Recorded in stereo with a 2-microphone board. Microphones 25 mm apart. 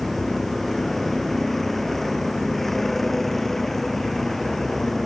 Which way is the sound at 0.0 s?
10° left (ahead or behind).